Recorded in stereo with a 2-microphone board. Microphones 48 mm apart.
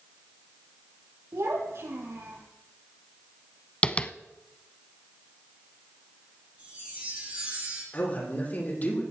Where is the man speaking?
40° left (ahead or behind), 8 m.